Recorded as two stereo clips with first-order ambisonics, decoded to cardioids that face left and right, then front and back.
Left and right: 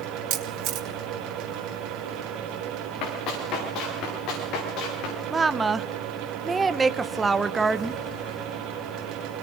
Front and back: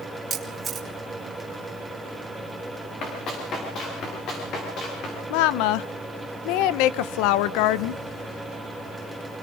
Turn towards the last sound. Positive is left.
turn(degrees=-10)